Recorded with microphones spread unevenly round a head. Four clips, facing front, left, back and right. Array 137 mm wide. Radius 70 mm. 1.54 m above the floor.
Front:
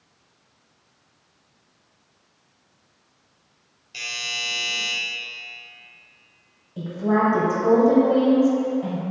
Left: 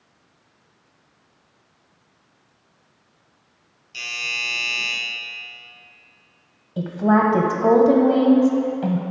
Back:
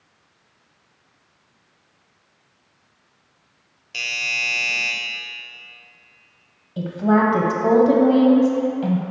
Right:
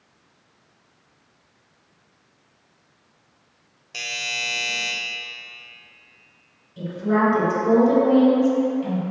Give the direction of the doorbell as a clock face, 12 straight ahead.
4 o'clock.